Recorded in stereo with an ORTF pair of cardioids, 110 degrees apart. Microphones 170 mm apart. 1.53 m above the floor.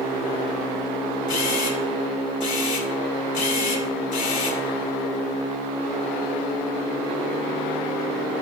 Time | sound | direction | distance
1.3 | a camera shutter | 50° left | 2.5 m